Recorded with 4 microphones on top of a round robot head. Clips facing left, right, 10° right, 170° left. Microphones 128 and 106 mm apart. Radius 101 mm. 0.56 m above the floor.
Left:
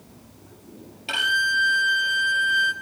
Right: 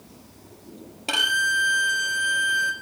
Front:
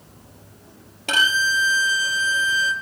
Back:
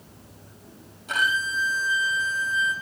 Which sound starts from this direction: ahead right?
A violin, at 1.1 s.